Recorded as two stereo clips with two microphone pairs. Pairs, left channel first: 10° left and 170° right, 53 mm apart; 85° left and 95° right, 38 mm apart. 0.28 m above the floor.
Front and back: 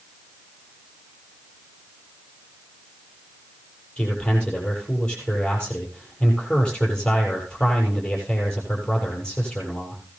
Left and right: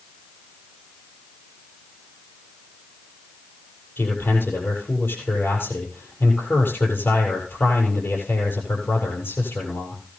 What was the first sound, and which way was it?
A man speaking, 85° left.